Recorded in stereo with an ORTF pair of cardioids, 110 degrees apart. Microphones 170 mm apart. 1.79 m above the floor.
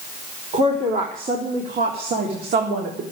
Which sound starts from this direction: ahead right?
A woman speaking, at 0.5 s.